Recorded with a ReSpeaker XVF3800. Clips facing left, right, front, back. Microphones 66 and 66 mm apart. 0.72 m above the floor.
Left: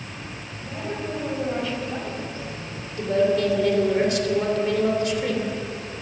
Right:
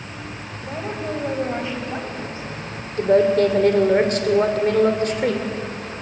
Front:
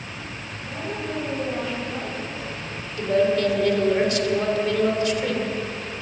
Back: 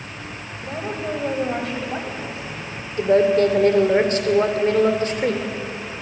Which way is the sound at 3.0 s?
130° right.